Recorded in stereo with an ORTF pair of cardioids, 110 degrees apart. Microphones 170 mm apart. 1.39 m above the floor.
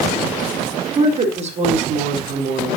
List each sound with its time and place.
0.9 s a woman speaking: 35° right, 4 m; by 2.8 s 55° right, 4 m